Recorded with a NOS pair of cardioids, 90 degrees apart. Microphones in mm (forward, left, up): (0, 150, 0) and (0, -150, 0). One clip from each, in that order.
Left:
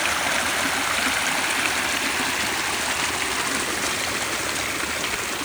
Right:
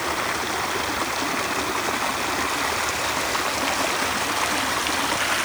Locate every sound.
Only background noise.